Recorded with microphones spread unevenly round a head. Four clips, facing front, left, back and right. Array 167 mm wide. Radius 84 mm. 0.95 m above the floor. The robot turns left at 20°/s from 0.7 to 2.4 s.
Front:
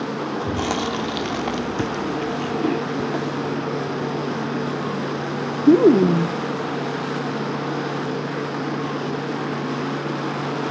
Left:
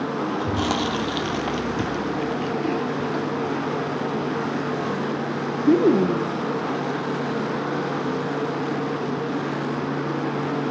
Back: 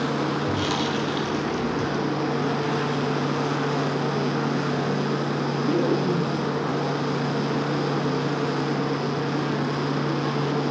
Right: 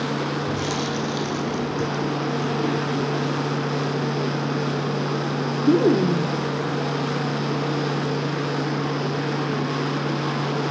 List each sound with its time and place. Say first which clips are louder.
0.4 s chewing: left 2 dB, front 1 dB; 40° left, 1.2 m; by 6.4 s 5° left, 1.2 m